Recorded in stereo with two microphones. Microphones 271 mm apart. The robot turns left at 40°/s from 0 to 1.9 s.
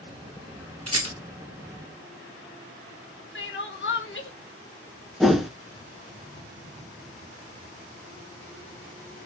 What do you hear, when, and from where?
0.9 s a rattle: 70° right (ahead or behind), 1.4 m; by 1.2 s 60° right (ahead or behind), 1.4 m
3.4 s crying: 50° left (ahead or behind), 0.6 m
5.2 s a whoosh: centre (ahead or behind), 0.6 m